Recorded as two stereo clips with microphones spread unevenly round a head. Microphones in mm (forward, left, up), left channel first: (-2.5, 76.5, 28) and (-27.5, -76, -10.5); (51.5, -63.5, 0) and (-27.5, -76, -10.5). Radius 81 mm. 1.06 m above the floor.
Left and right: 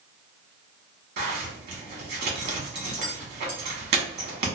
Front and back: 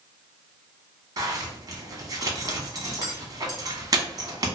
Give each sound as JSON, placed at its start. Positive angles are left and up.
{"t": 1.2, "sound": "a zipper", "azimuth_deg": -130, "distance_m": 1.1}